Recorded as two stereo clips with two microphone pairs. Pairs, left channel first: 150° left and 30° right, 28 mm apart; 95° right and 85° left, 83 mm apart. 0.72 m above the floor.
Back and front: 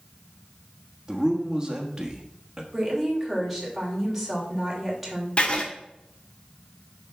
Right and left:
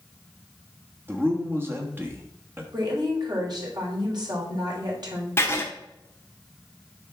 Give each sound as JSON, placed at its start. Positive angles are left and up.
{"t": 1.1, "sound": "a man speaking", "azimuth_deg": 30, "distance_m": 1.4}
{"t": 2.7, "sound": "a woman speaking", "azimuth_deg": 55, "distance_m": 3.0}
{"t": 5.4, "sound": "writing", "azimuth_deg": -155, "distance_m": 1.2}